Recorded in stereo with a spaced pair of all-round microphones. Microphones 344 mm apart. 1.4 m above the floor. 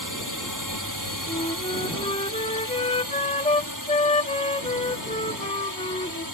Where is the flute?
20° left (ahead or behind).